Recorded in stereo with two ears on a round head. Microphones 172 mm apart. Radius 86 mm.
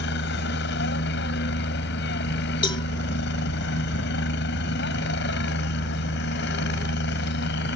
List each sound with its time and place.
0.0 s a helicopter: 60° left (ahead or behind)
2.6 s a cowbell: 25° left (ahead or behind)